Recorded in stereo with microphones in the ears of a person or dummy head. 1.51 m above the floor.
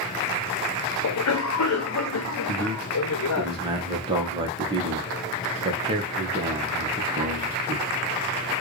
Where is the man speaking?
20° right (ahead or behind), 1.5 m.